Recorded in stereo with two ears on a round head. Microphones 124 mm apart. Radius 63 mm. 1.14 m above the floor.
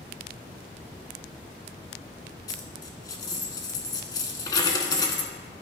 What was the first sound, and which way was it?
A dropped coin, 30° left (ahead or behind).